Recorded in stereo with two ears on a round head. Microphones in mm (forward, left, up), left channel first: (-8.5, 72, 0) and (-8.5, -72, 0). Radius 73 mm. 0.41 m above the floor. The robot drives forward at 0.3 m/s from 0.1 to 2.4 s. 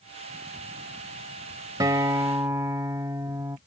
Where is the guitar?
20° right (ahead or behind); by 3.6 s 15° right (ahead or behind).